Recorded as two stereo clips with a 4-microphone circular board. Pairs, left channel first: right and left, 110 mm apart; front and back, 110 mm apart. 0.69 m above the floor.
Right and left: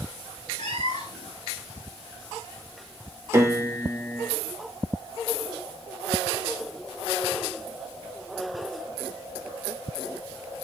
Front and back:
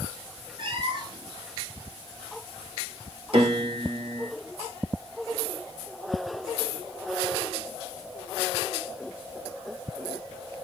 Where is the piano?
155° left, 2.5 m.